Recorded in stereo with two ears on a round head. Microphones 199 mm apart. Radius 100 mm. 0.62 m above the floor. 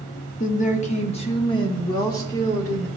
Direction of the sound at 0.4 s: 35° left (ahead or behind).